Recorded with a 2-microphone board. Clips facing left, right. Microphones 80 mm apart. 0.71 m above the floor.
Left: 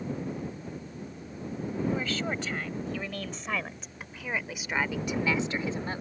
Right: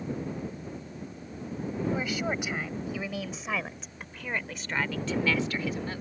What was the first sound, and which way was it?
A woman speaking, 15° right (ahead or behind).